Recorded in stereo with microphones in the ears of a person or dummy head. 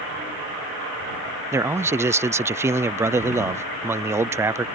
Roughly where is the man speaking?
Centre.